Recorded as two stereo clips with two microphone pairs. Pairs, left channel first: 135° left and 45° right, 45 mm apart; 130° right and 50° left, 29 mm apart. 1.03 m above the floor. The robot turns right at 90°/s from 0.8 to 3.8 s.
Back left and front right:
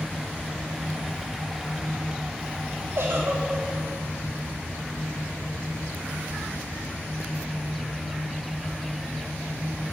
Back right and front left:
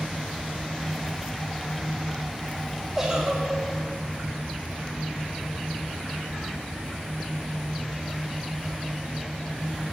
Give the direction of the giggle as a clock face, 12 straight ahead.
1 o'clock.